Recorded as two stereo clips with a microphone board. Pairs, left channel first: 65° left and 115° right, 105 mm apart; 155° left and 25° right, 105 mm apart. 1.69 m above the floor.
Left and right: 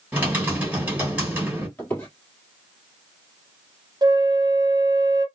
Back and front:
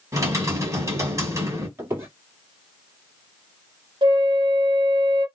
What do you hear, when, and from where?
0.1 s typing on a keyboard: 50° right, 1.6 m
1.8 s a squeak: 20° left, 1.9 m
4.0 s a flute: 60° right, 0.7 m